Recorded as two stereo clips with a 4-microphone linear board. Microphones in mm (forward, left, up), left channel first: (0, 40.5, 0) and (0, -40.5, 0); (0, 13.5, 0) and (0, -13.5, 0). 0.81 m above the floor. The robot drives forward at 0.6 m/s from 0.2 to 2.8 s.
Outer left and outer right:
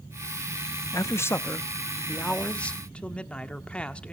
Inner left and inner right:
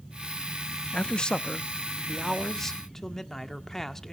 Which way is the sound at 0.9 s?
40° left (ahead or behind).